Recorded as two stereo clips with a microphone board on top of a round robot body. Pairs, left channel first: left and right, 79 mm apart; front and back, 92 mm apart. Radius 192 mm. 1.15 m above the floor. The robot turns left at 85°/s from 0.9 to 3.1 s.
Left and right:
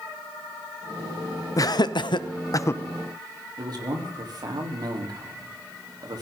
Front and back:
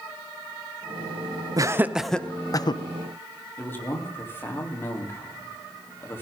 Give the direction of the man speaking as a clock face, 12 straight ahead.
2 o'clock.